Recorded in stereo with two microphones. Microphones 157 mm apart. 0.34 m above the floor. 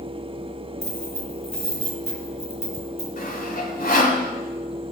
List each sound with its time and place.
0.8 s keys jangling: 40° left (ahead or behind), 3.5 m
3.2 s sawing: 60° left (ahead or behind), 1.6 m